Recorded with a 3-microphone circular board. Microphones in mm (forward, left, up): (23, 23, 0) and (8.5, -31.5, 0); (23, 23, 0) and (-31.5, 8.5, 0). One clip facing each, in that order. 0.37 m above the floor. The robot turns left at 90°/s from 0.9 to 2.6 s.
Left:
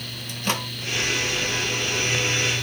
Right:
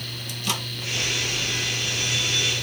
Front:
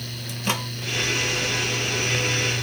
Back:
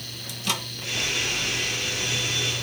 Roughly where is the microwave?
Ahead left.